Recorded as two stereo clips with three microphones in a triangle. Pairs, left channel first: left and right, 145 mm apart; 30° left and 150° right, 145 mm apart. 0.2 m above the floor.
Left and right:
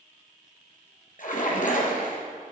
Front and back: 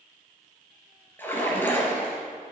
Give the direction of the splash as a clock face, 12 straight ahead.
8 o'clock.